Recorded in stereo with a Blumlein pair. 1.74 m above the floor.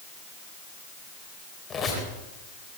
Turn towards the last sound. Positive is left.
turn(degrees=20)